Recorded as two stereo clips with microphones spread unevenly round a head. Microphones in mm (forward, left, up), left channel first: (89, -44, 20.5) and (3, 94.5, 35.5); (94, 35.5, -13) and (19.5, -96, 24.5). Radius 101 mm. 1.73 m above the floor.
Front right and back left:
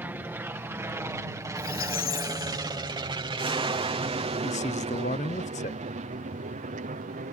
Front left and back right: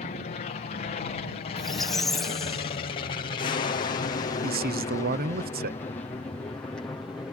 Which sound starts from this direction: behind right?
A man speaking, at 4.4 s.